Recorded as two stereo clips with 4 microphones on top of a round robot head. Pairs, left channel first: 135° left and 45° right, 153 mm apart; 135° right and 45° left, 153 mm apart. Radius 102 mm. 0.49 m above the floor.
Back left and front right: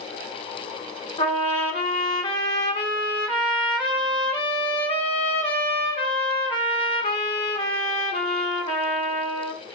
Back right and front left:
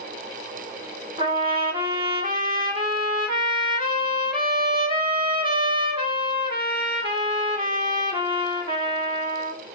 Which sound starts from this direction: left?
A trumpet, at 1.2 s.